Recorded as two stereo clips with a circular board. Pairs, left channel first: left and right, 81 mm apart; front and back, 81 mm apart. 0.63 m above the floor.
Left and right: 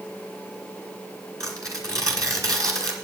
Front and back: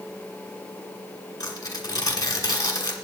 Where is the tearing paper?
45° right, 2.0 m.